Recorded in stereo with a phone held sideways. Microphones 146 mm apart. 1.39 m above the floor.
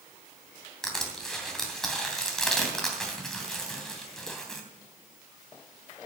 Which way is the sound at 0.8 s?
5° left (ahead or behind).